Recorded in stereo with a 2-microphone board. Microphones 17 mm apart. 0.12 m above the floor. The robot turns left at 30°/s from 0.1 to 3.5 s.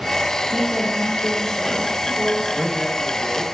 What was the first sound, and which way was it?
A woman speaking, 55° right.